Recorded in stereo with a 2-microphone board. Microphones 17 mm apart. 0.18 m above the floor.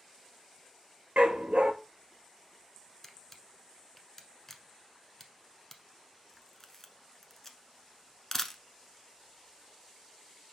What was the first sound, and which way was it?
A dog barking, 80° right.